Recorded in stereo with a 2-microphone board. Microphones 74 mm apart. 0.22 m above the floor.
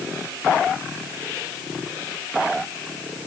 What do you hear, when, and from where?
Only background noise.